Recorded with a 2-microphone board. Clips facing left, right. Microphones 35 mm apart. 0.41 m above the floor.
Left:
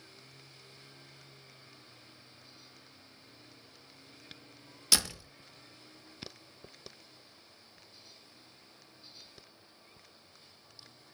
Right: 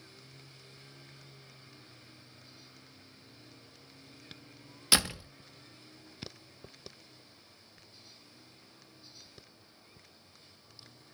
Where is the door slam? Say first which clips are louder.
Right 3 dB; 25° right (ahead or behind), 0.5 m.